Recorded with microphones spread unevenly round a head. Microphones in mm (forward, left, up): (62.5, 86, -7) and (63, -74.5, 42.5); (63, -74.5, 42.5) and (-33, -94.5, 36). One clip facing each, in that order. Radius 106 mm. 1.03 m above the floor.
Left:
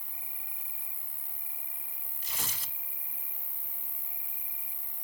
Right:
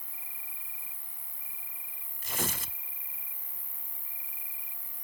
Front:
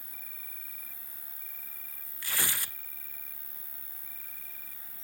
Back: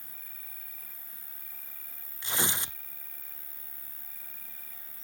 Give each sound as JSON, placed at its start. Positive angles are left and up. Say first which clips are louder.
{"t": 0.0, "sound": "an insect", "louder": "left 1 dB, front 1 dB", "azimuth_deg": 50}
{"t": 2.2, "sound": "tearing paper", "louder": "right 9 dB, back 3 dB", "azimuth_deg": -120}